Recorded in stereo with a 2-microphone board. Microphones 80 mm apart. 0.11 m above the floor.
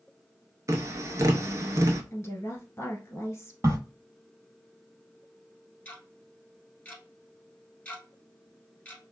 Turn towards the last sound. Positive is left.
turn(degrees=15)  # may be behind; listen again after turning